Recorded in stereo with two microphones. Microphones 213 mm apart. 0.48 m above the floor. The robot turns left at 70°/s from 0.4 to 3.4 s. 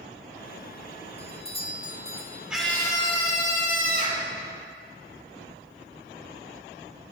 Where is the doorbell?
25° left (ahead or behind), 1.2 m; by 2.4 s 5° left (ahead or behind), 1.2 m.